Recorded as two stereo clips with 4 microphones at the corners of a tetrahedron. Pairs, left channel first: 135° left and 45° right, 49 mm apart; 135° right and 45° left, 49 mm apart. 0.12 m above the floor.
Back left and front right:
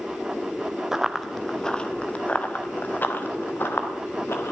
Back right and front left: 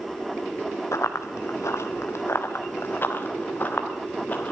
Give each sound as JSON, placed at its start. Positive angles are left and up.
{"t": 0.9, "sound": "running footsteps", "azimuth_deg": -125, "distance_m": 1.4}